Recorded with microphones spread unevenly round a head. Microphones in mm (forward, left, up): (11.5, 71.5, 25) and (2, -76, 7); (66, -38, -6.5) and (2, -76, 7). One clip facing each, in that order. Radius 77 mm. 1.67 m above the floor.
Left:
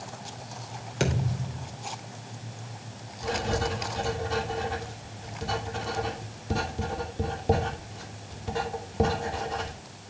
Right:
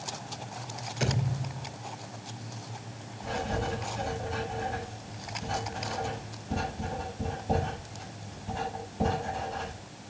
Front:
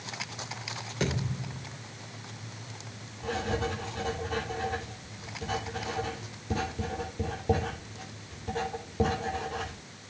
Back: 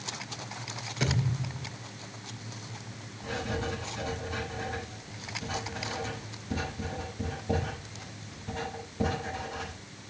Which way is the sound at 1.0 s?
105° left.